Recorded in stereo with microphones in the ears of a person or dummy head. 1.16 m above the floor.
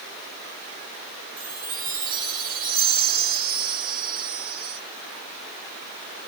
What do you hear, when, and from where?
1.4 s a chime: 40° right (ahead or behind), 0.6 m